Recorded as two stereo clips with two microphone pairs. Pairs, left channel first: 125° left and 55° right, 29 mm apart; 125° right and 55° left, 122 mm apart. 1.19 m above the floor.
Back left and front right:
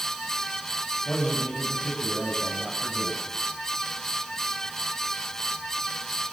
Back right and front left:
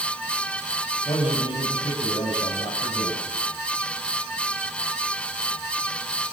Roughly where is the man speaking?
Behind.